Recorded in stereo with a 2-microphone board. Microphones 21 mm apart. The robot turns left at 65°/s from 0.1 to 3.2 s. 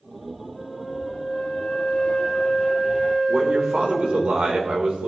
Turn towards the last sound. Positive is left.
turn(degrees=-70)  # may be behind; listen again after turning